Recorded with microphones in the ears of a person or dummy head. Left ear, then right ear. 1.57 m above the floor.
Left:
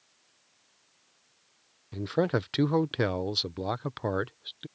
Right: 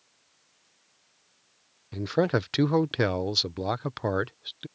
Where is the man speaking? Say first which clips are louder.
Right 2 dB; 10° right (ahead or behind).